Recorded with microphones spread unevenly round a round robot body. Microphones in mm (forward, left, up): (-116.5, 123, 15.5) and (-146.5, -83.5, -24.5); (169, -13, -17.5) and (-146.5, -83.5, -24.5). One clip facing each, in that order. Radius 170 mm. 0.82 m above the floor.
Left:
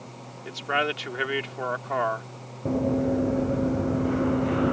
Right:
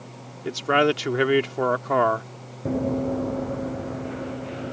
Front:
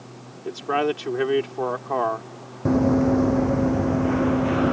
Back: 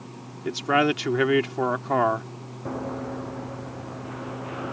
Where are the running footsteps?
10° right; by 4.7 s 40° left.